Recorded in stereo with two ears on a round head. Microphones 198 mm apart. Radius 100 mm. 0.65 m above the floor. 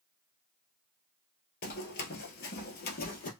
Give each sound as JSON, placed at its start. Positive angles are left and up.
{"t": 1.6, "sound": "running footsteps", "side_deg": 40, "distance_m": 0.9}